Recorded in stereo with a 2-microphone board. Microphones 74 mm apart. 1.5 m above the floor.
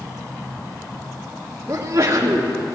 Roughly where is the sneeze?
Right.